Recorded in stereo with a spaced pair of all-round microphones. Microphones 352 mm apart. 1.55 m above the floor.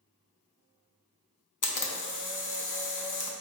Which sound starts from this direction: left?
A camera shutter, at 1.6 s.